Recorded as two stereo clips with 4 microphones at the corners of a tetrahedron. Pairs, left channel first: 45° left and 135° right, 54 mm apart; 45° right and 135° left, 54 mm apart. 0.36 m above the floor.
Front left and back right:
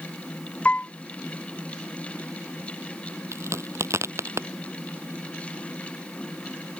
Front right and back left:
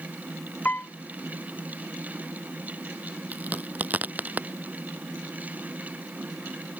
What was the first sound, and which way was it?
A piano, 5° right.